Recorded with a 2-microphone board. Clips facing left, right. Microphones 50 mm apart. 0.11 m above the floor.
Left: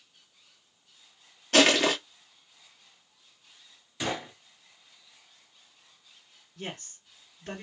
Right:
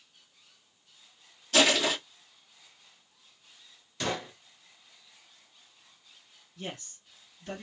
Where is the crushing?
50° left (ahead or behind), 1.1 m.